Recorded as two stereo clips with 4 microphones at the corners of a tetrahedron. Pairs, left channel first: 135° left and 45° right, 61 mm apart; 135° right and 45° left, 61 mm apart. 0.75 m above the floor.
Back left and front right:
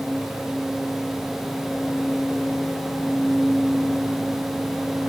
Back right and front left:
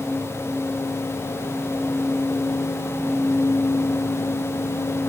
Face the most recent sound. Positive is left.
No sound to turn to.